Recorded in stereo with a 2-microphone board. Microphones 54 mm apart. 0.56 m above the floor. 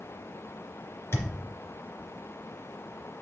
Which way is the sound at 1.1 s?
50° left (ahead or behind).